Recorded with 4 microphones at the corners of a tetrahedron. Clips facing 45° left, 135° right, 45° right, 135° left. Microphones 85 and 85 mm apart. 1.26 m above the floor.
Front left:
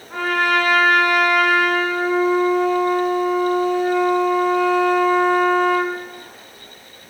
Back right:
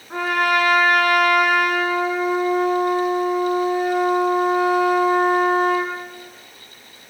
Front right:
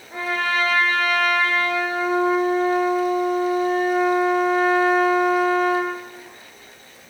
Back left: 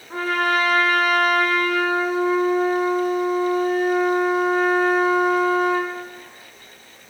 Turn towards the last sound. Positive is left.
turn(degrees=150)